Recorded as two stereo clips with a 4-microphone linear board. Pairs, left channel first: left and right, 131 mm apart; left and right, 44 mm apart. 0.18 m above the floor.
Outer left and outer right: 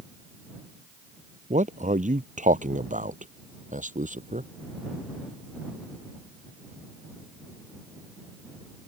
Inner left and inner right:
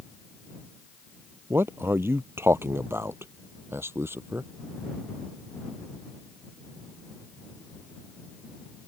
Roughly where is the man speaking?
Right.